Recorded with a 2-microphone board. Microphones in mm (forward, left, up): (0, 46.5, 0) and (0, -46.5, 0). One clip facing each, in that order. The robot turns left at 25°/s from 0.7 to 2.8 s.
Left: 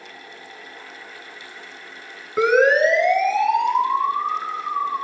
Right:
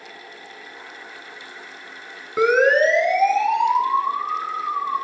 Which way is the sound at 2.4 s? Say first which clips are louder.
Even; 5° right (ahead or behind).